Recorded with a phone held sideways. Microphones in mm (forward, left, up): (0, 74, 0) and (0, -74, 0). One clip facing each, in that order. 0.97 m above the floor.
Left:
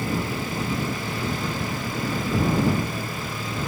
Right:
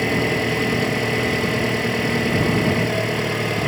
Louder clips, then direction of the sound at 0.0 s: Right 7 dB; 80° right.